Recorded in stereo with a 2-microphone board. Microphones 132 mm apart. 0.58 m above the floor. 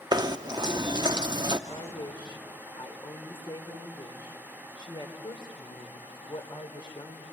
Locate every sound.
0.1 s knocking: 35° right (ahead or behind), 0.6 m
1.7 s a woman speaking: 40° left (ahead or behind), 2 m